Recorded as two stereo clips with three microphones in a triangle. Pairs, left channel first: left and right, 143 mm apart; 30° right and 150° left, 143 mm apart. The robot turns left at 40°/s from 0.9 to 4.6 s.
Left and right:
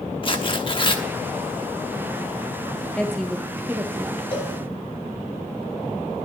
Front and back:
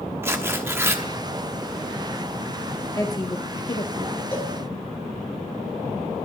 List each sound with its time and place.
0.2 s tearing paper: 95° left, 0.9 m; by 1.0 s 85° left, 0.9 m
3.0 s a woman speaking: 15° left, 0.6 m; by 4.2 s 35° right, 0.6 m
4.3 s a cowbell: 40° left, 1.4 m; by 4.5 s 35° left, 1.4 m